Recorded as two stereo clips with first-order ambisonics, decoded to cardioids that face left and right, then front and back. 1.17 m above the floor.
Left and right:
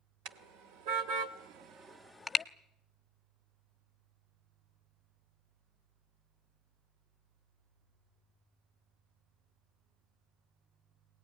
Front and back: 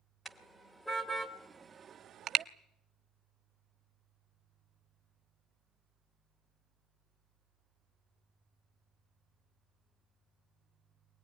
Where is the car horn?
85° right, 2 m; by 2.5 s 150° left, 0.7 m.